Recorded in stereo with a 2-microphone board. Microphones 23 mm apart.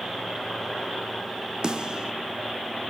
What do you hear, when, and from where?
1.6 s a snare drum: 35° right (ahead or behind), 1.1 m